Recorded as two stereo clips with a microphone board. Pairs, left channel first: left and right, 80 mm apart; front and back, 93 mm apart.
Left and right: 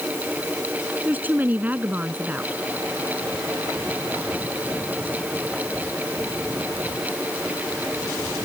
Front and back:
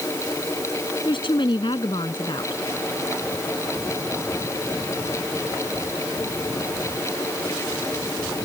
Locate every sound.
1.1 s a woman speaking: 25° right